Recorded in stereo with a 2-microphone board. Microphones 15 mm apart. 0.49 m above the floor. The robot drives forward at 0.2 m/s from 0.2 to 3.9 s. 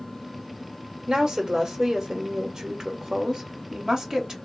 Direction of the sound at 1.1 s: 55° right (ahead or behind).